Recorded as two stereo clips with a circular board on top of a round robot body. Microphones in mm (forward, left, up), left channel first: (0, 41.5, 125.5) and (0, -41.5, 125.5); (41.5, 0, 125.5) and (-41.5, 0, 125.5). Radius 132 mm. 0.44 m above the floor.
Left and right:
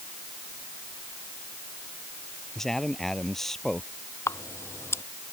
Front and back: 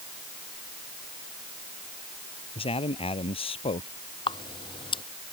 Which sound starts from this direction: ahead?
A man speaking, at 2.5 s.